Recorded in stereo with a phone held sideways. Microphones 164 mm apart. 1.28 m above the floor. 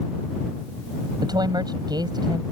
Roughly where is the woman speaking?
Right.